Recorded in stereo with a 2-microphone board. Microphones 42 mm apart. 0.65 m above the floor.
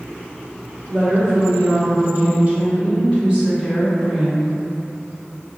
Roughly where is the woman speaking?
Right.